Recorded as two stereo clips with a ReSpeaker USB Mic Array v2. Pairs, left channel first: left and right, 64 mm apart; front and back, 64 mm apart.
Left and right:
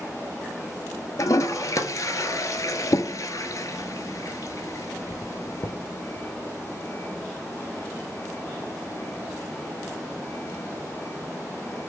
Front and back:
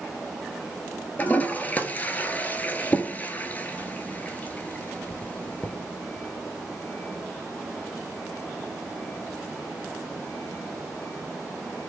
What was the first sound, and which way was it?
A toilet flushing, 65° left.